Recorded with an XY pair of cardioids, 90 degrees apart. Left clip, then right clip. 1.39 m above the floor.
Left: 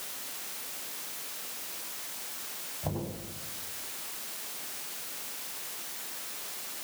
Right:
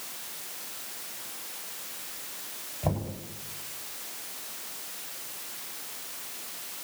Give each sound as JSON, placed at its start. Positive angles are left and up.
{"t": 2.8, "sound": "knocking", "azimuth_deg": -45, "distance_m": 8.0}